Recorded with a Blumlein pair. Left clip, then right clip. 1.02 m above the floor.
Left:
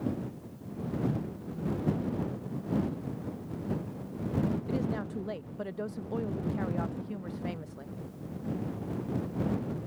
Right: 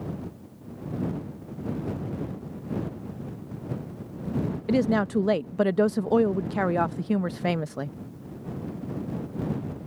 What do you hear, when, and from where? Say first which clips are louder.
4.7 s a woman speaking: right 10 dB; 55° right